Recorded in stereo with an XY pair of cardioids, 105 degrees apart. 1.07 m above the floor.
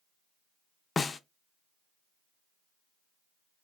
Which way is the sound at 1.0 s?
30° left.